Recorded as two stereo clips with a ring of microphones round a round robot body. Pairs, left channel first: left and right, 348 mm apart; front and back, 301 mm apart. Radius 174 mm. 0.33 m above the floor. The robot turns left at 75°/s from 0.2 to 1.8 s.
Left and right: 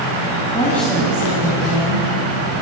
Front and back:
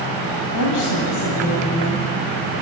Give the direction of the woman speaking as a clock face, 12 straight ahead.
11 o'clock.